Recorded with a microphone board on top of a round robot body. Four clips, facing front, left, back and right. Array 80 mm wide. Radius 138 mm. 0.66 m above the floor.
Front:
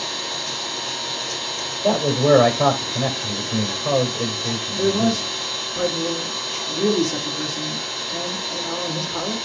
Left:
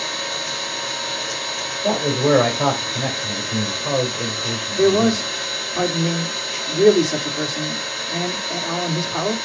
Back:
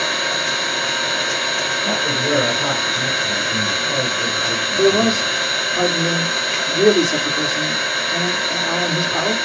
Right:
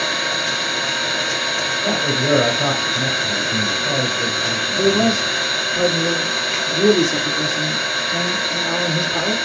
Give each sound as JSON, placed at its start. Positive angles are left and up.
{"t": 0.0, "sound": "an engine running", "azimuth_deg": -145, "distance_m": 3.0}
{"t": 1.8, "sound": "a man speaking", "azimuth_deg": 45, "distance_m": 4.0}
{"t": 4.8, "sound": "a man speaking", "azimuth_deg": 135, "distance_m": 2.5}